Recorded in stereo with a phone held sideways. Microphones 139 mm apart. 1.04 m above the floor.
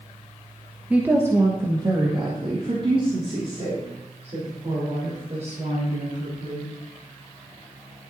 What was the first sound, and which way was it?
A woman speaking, 10° right (ahead or behind).